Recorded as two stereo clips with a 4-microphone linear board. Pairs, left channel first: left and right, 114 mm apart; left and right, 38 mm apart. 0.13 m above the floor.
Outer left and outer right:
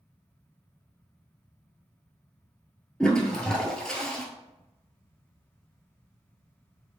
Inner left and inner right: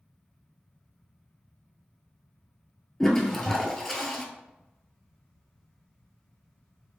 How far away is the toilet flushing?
About 0.8 m.